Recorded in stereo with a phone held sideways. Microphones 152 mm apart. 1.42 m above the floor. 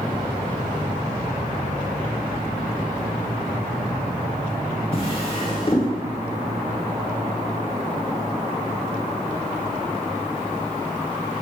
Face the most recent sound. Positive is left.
turn(degrees=40)  # may be behind; listen again after turning